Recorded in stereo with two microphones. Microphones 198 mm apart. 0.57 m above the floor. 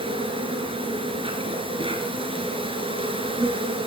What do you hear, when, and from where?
0.0 s an insect: 25° right (ahead or behind), 2.5 m